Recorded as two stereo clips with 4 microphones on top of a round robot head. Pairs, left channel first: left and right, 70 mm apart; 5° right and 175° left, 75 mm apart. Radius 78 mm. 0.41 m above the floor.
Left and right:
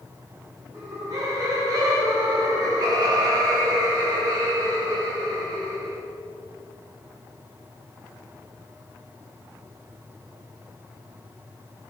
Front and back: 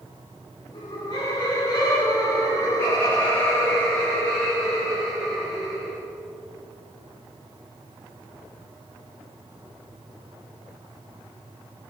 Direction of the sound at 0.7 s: 35° right.